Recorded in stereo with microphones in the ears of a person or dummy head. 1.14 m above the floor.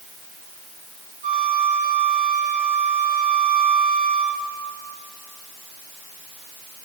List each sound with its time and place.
1.2 s a flute: 40° right (ahead or behind), 1.2 m